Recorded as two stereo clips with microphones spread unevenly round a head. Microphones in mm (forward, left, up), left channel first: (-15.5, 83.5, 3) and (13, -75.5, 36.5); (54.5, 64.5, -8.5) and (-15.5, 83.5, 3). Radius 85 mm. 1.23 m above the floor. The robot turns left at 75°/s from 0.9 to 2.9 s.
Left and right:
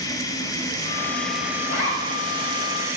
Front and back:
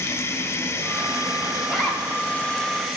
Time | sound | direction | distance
0.0 | running water | 25° left | 1.1 m
1.6 | a zipper | 75° left | 6 m